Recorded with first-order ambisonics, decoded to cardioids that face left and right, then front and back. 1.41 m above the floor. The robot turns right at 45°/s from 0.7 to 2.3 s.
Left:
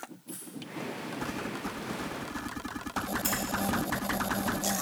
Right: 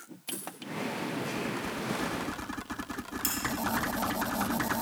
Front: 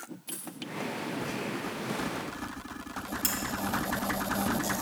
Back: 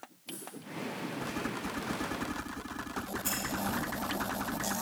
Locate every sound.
0.3 s a dropped coin: 55° right, 1.9 m
3.2 s cutlery clinking: 25° right, 3.5 m